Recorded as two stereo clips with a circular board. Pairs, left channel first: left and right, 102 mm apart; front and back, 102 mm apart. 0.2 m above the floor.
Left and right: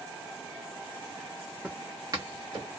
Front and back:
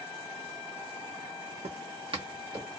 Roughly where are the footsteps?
Behind.